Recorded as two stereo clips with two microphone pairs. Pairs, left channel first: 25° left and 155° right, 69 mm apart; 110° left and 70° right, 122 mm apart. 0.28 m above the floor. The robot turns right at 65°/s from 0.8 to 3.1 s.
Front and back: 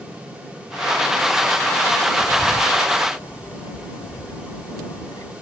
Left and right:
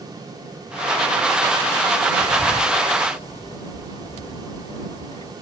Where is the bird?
5° left; by 5.3 s 60° left.